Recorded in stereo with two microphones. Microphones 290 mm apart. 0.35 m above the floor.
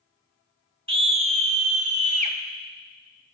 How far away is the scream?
About 1.0 m.